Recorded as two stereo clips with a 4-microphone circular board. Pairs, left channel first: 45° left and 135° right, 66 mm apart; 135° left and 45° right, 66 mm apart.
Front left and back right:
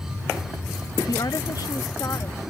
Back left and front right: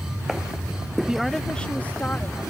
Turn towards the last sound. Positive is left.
turn(degrees=80)